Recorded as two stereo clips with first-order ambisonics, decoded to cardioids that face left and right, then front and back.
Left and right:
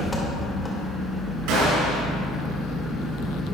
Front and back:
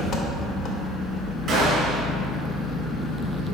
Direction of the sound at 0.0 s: 5° left.